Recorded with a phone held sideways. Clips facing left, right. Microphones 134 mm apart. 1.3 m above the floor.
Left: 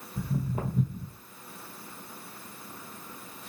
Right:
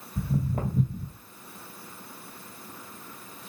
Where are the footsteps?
50° right (ahead or behind), 1.9 m.